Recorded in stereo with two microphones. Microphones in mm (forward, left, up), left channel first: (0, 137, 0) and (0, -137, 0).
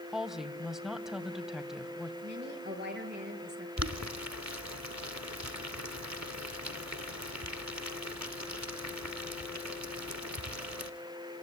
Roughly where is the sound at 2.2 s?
Right.